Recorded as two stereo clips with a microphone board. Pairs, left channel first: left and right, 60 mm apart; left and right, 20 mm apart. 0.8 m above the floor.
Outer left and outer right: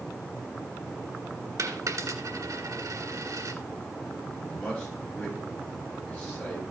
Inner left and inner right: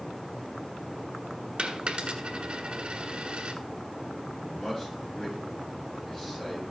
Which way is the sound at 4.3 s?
15° left (ahead or behind).